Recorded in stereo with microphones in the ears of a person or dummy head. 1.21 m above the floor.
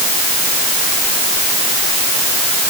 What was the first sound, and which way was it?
Only background noise.